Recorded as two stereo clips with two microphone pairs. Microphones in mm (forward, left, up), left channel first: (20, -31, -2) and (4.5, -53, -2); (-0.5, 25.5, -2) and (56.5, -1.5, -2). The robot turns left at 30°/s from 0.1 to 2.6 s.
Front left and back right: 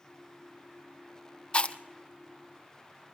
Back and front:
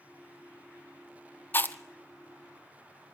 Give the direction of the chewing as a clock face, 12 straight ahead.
9 o'clock.